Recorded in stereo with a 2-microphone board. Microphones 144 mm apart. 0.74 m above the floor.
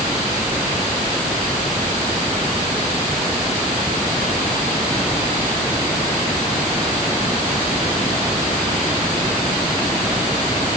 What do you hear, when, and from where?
Only background noise.